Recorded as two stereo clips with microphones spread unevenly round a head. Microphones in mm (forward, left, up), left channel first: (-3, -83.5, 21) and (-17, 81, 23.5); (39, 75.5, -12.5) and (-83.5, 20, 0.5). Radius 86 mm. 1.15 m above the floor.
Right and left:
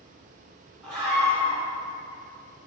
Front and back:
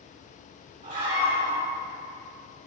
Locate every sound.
0.8 s a scream: straight behind, 3.5 m